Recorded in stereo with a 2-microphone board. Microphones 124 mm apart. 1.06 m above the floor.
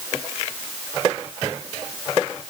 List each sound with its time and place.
Only background noise.